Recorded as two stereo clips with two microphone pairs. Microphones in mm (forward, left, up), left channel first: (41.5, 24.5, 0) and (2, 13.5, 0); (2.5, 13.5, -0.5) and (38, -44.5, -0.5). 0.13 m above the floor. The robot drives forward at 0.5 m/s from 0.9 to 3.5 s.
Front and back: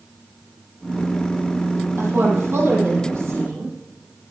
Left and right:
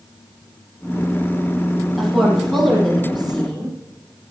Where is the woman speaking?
150° right, 5 m.